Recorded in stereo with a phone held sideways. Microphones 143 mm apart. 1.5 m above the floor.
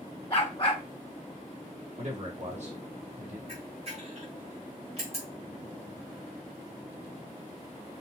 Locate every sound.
0.3 s a dog barking: 40° left (ahead or behind), 2 m
2.0 s a man speaking: 55° right (ahead or behind), 2.5 m
3.5 s a camera shutter: 45° right (ahead or behind), 2 m